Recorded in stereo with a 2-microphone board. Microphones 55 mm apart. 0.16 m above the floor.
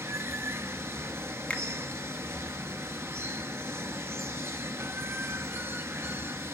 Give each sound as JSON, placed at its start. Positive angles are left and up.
{"t": 0.0, "sound": "running water", "side_deg": -50, "distance_m": 0.9}
{"t": 1.5, "sound": "a finger snap", "side_deg": 20, "distance_m": 1.0}